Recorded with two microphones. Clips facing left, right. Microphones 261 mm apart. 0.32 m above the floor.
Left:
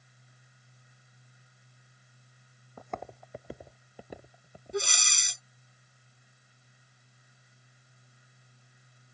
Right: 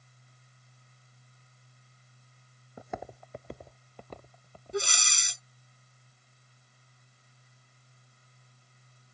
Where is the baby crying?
I don't hear a baby crying.